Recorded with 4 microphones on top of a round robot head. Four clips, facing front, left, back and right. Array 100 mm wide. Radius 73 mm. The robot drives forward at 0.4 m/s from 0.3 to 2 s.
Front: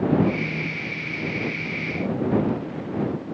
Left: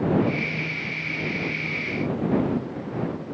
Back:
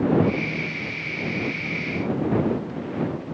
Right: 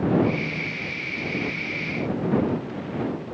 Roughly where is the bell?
No bell in this recording.